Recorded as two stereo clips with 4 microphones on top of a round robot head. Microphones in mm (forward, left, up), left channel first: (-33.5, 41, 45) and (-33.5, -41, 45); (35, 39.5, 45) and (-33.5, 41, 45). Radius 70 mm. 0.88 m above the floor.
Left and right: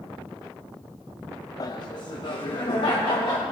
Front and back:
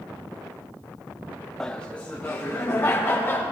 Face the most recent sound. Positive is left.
turn(degrees=65)